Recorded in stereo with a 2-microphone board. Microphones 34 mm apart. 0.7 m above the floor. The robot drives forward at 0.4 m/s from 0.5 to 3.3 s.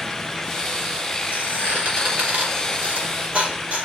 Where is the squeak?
50° right (ahead or behind), 2.5 m; by 3.9 s 40° right (ahead or behind), 3.5 m.